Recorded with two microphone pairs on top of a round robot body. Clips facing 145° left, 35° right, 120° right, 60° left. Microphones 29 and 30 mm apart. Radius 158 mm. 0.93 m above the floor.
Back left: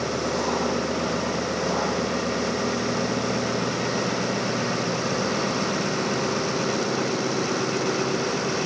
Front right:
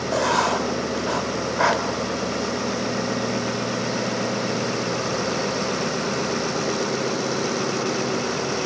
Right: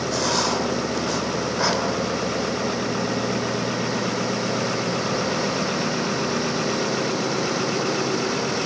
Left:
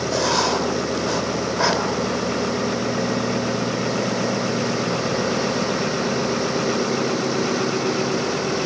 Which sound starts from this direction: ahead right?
Writing, at 0.1 s.